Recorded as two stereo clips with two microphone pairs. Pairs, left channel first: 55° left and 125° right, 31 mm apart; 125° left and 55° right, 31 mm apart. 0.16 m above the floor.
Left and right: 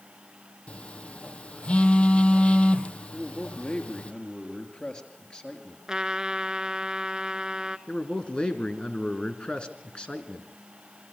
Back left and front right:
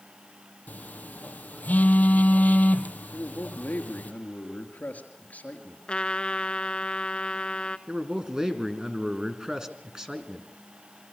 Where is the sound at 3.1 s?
110° left, 3.5 m.